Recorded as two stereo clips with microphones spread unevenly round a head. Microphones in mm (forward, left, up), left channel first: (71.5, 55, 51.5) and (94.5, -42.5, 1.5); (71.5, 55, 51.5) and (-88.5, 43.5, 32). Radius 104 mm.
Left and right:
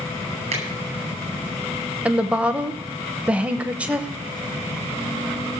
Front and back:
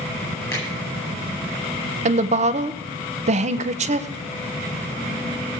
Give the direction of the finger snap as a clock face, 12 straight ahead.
2 o'clock.